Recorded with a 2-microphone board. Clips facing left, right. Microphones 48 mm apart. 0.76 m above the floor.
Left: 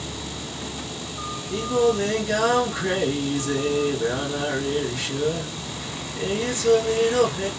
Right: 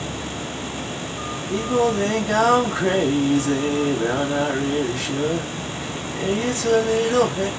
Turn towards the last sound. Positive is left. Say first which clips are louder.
# right 1 dB
turn(degrees=-50)  # may be behind; listen again after turning